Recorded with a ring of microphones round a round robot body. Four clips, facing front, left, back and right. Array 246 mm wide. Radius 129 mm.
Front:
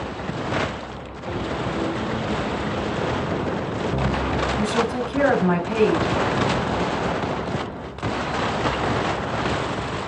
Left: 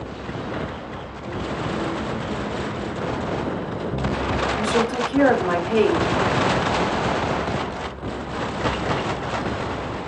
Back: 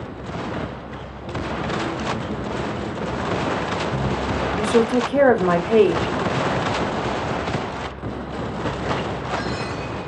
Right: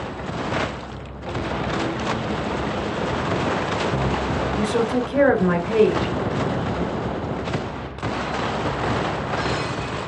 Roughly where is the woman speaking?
Behind.